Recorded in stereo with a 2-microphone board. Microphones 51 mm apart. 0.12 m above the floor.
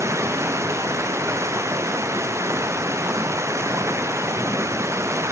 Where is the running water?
65° right (ahead or behind).